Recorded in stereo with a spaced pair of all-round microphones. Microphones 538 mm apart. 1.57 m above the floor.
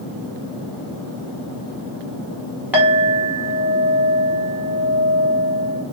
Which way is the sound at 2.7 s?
5° right (ahead or behind).